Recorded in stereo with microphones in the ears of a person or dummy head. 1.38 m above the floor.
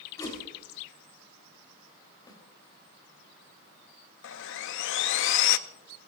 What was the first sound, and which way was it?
A whoosh, 20° left (ahead or behind).